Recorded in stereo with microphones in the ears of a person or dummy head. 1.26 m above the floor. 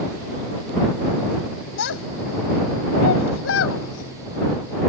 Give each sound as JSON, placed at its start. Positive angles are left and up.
{"t": 1.8, "sound": "a child speaking", "side_deg": 75}